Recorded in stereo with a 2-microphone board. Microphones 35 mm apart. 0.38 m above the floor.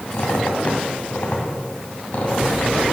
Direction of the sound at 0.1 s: 55° left (ahead or behind).